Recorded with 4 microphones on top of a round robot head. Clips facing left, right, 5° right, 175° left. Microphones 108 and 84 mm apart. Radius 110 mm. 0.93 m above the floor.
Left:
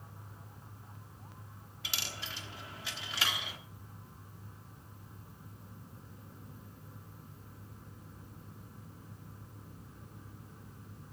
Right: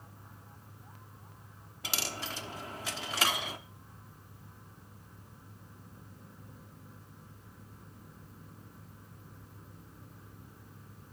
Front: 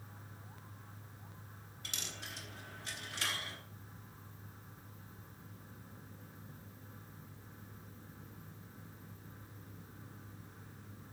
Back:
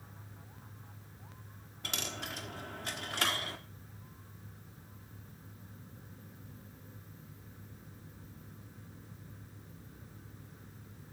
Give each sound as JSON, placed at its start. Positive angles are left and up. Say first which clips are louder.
{"t": 1.8, "sound": "a dropped coin", "louder": "right 6 dB, back 8 dB", "azimuth_deg": -135, "distance_m": 1.1}